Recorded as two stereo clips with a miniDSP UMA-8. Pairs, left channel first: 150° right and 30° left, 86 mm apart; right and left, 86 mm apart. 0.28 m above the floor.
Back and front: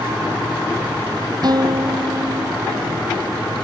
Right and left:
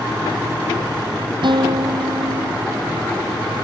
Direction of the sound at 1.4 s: 65° left.